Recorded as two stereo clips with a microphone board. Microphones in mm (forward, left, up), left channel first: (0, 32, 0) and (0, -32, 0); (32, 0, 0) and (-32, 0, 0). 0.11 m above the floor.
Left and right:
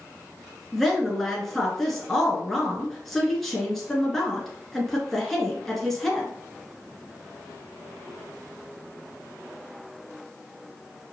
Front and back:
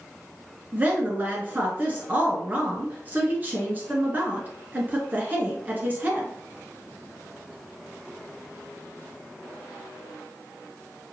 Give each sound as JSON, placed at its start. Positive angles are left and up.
{"t": 0.7, "sound": "a woman speaking", "azimuth_deg": 175, "distance_m": 1.4}